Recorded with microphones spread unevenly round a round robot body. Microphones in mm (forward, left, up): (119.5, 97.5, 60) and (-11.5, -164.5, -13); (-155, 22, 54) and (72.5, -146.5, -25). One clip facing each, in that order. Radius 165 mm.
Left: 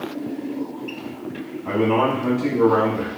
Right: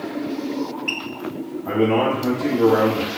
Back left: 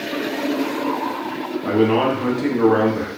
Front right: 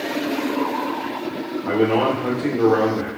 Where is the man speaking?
155° left, 1.2 m.